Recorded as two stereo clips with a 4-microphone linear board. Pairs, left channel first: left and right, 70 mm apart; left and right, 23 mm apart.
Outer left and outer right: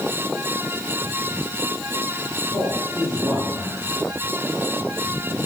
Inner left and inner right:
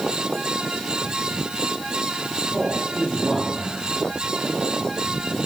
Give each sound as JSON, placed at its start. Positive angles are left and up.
{"t": 2.5, "sound": "a man speaking", "side_deg": -50, "distance_m": 7.5}